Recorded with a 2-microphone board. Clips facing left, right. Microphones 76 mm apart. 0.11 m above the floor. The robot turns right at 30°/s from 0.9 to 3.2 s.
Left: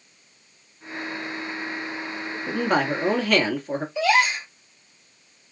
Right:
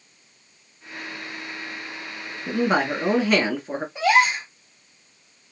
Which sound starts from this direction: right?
A gasp, at 4.0 s.